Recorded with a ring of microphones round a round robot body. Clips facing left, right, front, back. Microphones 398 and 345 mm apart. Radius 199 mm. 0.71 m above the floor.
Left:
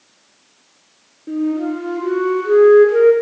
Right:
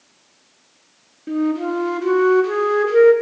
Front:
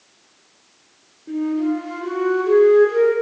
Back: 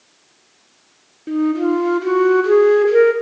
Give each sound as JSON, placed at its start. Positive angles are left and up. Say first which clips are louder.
{"t": 1.3, "sound": "a flute", "louder": "left 1 dB, back 4 dB", "azimuth_deg": -150, "distance_m": 0.5}